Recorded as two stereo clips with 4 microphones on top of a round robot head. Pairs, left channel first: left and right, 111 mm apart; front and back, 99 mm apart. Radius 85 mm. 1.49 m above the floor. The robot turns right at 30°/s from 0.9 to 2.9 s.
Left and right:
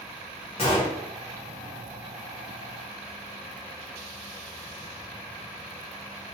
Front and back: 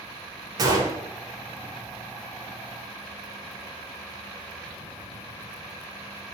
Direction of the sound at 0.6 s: 140° left.